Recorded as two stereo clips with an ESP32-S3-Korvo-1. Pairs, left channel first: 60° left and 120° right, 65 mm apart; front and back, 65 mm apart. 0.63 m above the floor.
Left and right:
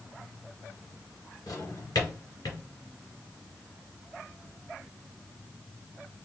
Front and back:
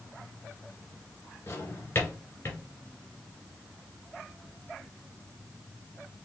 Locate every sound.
1.5 s a drawer: 50° left, 2.5 m